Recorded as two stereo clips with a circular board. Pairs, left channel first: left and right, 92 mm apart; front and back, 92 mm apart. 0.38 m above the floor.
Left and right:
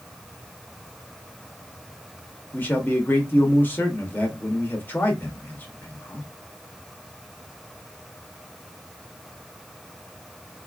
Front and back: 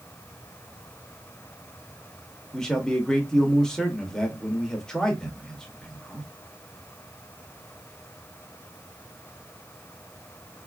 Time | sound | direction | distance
2.5 | a man speaking | 70° left | 0.8 m